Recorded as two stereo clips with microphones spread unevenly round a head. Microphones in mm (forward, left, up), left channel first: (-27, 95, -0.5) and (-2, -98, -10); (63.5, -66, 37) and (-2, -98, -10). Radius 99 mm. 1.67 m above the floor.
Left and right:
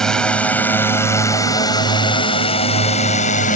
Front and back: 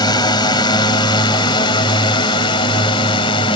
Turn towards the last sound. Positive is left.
turn(degrees=45)